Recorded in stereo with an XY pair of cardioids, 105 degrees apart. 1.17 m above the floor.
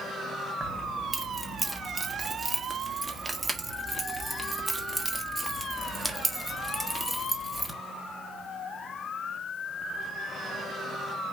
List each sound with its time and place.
0.6 s keys jangling: 10° right, 1.2 m